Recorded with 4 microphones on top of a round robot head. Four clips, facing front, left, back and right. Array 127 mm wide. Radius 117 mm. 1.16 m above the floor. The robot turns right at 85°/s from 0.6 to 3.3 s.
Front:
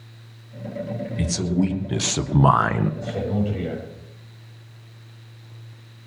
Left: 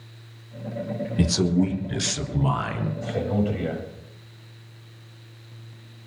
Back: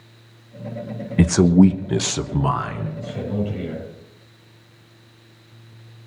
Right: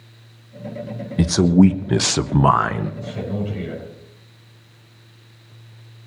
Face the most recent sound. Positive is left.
turn(degrees=75)